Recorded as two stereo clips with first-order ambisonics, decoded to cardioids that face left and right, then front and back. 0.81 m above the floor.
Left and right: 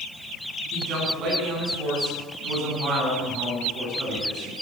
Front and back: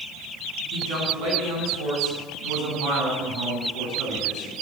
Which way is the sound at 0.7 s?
140° right.